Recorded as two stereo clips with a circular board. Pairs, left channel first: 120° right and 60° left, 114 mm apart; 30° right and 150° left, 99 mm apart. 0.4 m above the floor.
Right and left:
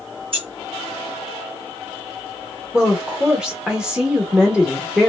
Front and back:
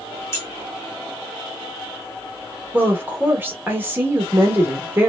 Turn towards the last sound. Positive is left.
turn(degrees=130)